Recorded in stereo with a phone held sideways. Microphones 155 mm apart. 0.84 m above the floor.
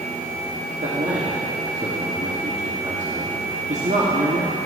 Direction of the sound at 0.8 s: 45° right (ahead or behind).